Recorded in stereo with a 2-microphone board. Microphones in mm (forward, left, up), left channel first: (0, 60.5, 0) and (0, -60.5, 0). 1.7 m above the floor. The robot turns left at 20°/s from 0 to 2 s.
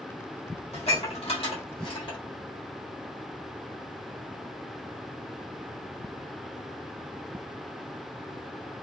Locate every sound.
0.7 s dishes clattering: 55° left (ahead or behind), 1.4 m; by 2.2 s 45° left (ahead or behind), 1.4 m